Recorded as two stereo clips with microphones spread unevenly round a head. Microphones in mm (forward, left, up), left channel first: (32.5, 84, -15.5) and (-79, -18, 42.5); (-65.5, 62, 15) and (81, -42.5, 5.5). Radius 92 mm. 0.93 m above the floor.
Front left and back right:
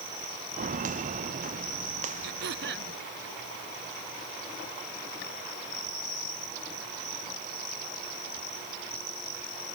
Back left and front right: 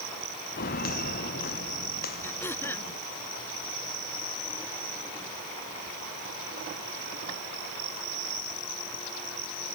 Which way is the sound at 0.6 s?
170° right.